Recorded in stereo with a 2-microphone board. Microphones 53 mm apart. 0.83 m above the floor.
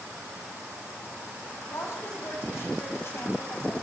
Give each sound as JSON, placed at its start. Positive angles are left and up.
{"t": 1.7, "sound": "a woman speaking", "side_deg": 60, "distance_m": 7.0}